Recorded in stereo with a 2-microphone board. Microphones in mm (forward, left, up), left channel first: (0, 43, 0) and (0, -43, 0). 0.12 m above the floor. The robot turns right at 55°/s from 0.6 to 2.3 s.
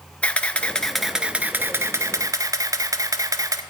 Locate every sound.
0.2 s a camera shutter: 160° left, 0.7 m; by 3.6 s 110° right, 0.7 m